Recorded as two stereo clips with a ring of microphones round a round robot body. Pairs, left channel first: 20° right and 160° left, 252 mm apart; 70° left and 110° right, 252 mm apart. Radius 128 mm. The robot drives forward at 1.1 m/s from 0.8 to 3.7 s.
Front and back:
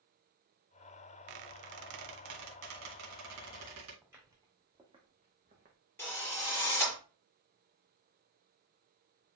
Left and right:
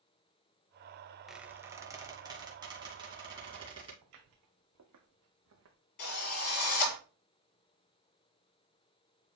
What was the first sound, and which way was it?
A squeak, 160° left.